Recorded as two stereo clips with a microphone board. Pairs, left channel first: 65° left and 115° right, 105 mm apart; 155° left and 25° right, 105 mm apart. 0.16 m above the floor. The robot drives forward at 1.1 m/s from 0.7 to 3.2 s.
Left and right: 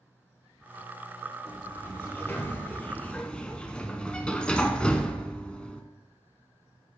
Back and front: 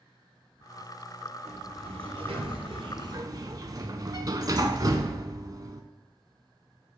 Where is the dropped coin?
I don't hear a dropped coin.